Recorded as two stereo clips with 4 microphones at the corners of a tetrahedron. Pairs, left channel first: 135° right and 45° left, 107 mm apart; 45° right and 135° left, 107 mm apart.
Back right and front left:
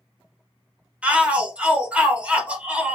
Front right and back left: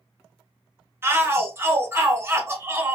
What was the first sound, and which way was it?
A shout, 110° left.